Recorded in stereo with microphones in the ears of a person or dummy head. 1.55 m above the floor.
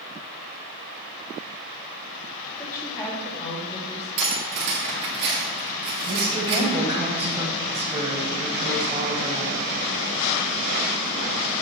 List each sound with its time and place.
2.6 s a woman speaking: 10° left (ahead or behind), 2.5 m; by 4.1 s 30° left (ahead or behind), 2 m
4.2 s cutlery clinking: 60° right (ahead or behind), 1.6 m
6.0 s a woman speaking: 20° right (ahead or behind), 1.4 m